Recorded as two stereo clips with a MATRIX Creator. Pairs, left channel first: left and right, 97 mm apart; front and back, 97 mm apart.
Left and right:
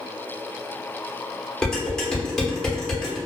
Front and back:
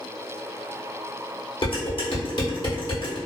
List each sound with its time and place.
1.6 s dishes clattering: 10° left, 0.9 m